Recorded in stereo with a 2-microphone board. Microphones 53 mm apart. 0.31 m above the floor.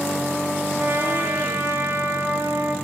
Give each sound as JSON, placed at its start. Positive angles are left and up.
{"t": 0.8, "sound": "a trumpet", "side_deg": -50, "distance_m": 2.0}